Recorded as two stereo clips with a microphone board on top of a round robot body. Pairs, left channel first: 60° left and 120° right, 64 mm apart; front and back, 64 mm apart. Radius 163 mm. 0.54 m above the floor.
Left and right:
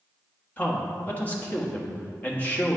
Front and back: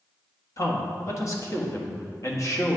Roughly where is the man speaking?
Ahead.